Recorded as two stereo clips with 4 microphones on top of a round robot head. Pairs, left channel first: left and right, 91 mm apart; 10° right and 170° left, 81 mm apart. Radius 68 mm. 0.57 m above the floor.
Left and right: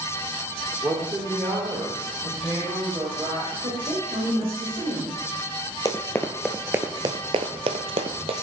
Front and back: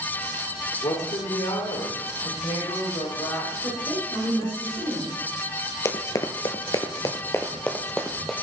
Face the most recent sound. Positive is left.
turn(degrees=-100)